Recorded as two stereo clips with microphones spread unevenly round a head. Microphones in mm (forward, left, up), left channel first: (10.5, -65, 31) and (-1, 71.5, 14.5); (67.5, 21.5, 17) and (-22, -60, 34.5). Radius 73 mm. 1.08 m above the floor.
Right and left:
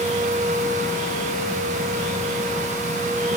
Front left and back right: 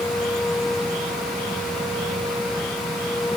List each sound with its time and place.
Only background noise.